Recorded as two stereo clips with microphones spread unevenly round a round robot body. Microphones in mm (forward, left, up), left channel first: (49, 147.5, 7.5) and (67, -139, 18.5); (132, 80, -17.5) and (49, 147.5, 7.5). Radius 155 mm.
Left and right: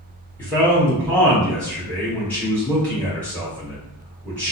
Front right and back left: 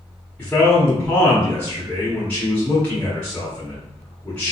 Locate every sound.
0.4 s a man speaking: 15° left, 1.2 m